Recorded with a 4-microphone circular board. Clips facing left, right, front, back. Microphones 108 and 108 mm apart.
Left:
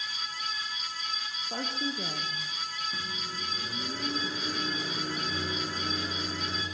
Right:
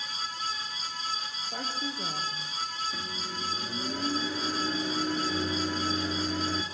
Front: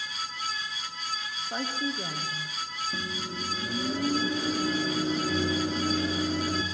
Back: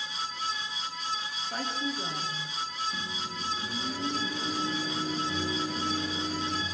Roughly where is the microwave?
Ahead.